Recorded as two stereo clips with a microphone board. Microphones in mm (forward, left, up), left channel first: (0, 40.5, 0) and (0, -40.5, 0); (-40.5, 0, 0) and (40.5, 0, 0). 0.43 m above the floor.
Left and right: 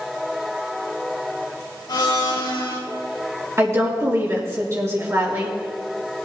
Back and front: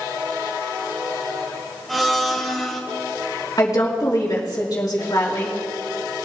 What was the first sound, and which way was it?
A blender, 90° left.